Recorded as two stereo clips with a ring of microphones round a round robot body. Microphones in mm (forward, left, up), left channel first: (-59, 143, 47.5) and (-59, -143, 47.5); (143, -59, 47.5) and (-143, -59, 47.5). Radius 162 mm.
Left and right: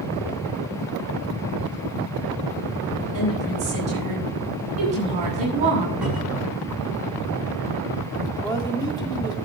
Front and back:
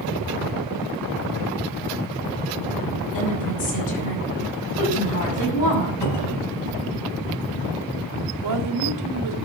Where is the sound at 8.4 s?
165° left, 2.5 m.